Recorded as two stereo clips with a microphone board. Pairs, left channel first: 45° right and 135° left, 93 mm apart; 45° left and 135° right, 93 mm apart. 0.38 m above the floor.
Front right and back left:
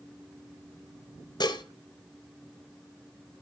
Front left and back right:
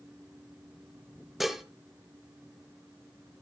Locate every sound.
1.4 s dishes clattering: 50° right, 0.7 m